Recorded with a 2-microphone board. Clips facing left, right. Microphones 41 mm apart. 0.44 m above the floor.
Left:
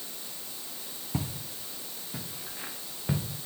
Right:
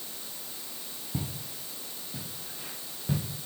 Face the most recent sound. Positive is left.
turn(degrees=45)  # may be behind; listen again after turning